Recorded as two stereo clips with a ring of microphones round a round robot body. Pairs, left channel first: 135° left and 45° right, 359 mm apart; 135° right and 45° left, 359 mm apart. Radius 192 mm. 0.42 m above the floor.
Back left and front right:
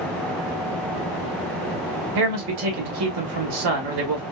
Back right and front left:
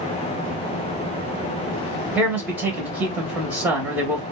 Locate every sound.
2.1 s a man speaking: 40° right, 2.5 m